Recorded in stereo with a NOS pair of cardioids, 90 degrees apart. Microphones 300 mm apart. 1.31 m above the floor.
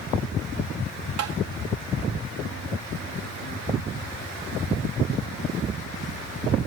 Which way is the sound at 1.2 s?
55° right.